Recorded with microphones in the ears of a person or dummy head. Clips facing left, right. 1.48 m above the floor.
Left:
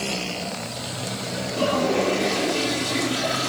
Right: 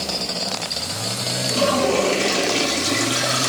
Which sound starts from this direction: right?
A toilet flushing, at 1.5 s.